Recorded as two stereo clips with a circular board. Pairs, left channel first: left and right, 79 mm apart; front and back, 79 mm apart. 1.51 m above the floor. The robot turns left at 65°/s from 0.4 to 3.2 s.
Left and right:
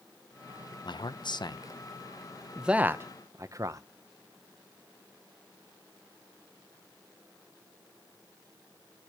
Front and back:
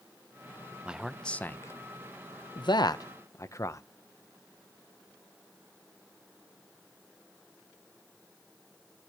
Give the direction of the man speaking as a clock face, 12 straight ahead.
9 o'clock.